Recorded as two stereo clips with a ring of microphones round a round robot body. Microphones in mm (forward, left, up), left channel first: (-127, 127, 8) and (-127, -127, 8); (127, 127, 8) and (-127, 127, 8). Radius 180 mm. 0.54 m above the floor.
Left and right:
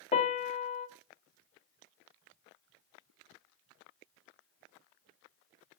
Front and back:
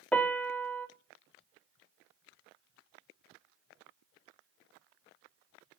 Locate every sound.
0.1 s a piano: 80° left, 1.3 m